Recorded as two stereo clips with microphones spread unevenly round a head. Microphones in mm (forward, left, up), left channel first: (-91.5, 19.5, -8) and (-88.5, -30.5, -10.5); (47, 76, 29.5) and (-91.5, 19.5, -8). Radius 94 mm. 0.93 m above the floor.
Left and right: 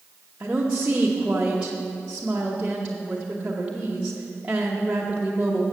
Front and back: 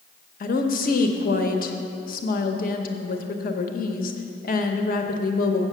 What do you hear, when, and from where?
0.4 s a woman speaking: 15° right, 0.7 m